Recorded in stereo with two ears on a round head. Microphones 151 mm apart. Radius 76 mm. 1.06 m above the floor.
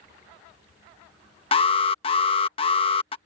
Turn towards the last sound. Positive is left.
turn(degrees=35)  # may be behind; listen again after turning